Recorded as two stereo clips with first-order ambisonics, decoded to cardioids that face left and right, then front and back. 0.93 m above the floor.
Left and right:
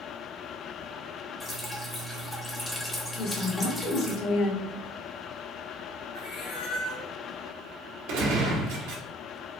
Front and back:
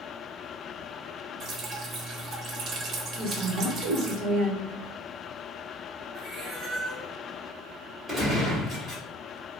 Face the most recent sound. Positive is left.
turn(degrees=-100)